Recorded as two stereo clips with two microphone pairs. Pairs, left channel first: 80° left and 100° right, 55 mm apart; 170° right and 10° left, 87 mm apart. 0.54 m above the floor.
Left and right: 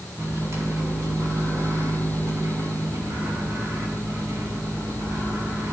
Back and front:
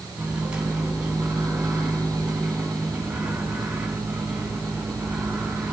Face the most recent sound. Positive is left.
turn(degrees=-65)